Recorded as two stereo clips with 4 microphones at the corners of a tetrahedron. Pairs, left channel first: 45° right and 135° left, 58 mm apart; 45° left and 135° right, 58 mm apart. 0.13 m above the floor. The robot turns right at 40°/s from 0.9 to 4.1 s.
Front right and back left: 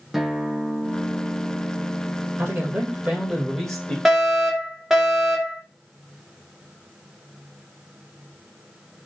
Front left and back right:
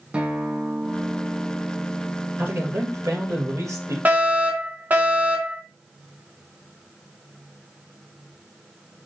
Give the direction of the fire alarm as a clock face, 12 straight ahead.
5 o'clock.